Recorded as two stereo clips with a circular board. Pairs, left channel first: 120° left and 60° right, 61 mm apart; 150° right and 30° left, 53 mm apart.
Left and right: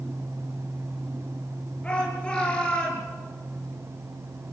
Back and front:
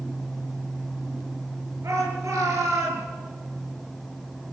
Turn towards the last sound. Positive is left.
turn(degrees=45)